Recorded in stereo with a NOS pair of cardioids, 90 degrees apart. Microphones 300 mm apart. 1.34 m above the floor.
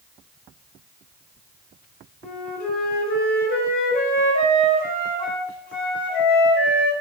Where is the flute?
30° left, 0.9 m.